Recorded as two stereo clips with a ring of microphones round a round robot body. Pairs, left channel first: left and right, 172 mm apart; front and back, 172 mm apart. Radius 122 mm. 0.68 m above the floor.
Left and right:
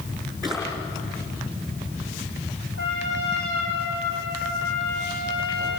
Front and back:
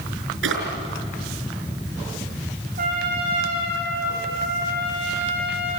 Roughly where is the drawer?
Behind.